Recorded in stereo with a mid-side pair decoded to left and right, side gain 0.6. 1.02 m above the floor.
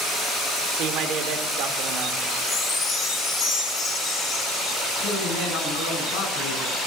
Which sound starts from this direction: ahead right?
A man speaking, at 0.7 s.